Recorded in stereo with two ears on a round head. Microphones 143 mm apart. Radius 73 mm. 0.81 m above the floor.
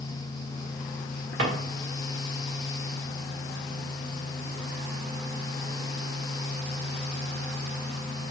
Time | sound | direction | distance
1.4 | a drawer | 85° right | 1.6 m